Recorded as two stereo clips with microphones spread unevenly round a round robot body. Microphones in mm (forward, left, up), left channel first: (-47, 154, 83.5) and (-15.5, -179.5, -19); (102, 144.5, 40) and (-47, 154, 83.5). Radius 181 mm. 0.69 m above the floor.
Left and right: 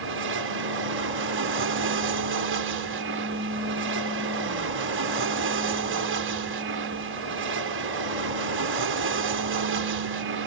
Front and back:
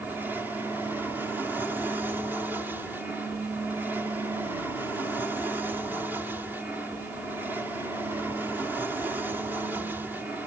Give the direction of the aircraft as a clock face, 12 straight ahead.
3 o'clock.